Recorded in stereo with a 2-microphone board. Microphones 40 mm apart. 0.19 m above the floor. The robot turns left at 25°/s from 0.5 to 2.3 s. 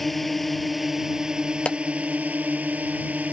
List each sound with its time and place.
0.0 s a drone: straight ahead; by 3.3 s 45° right
1.6 s a clap: 30° left (ahead or behind)